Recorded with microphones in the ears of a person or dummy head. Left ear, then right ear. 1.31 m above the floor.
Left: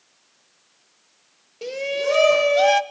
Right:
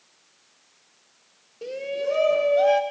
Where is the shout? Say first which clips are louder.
Left 4 dB; 25° left (ahead or behind), 1.1 m; by 2.8 s 65° left (ahead or behind), 1.0 m.